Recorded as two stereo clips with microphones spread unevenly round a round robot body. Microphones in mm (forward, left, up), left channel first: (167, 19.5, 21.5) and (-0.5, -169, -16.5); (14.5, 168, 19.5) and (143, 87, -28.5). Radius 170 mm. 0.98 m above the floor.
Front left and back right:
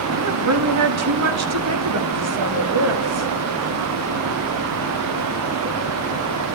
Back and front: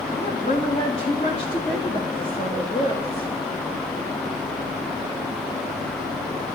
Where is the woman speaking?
135° right, 1.4 m.